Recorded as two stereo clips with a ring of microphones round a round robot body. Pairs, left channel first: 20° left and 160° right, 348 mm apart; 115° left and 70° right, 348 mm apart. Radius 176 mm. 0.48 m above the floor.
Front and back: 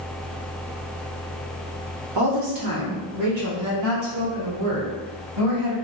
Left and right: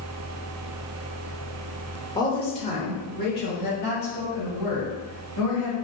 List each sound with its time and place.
2.1 s a woman speaking: 170° right, 1.5 m; by 5.8 s 160° left, 3.5 m